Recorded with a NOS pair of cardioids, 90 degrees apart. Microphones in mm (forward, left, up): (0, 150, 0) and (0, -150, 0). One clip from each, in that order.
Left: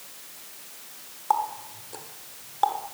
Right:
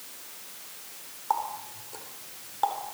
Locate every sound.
1.3 s a running tap: 30° left, 3.5 m